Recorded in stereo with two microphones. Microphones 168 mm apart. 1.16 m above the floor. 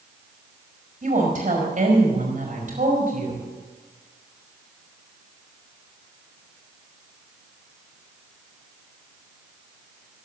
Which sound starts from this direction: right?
A woman speaking, at 1.0 s.